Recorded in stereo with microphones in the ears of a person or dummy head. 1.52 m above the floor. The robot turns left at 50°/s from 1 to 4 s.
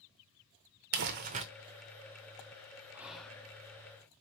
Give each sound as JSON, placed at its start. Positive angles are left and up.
{"t": 0.9, "sound": "crumpling", "side_deg": -55, "distance_m": 0.6}
{"t": 2.9, "sound": "whispering", "side_deg": -10, "distance_m": 0.7}